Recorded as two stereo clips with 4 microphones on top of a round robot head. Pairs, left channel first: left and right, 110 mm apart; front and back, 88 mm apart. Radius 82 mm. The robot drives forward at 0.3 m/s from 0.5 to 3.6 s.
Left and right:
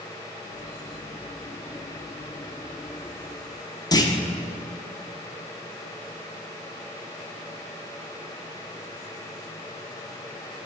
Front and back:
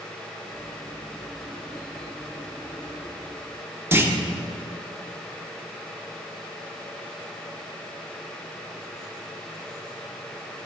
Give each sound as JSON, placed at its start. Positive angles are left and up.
{"t": 3.9, "sound": "a clunk", "azimuth_deg": 125, "distance_m": 0.8}